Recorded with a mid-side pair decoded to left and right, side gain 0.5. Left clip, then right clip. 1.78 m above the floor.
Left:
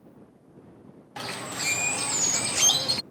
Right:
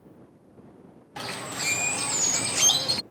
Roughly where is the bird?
Ahead.